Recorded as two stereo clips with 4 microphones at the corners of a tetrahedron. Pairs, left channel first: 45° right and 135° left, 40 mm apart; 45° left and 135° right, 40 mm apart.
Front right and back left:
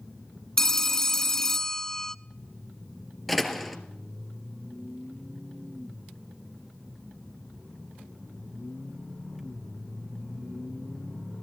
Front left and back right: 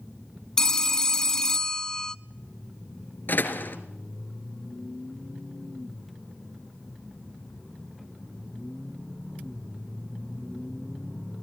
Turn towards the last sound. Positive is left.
turn(degrees=40)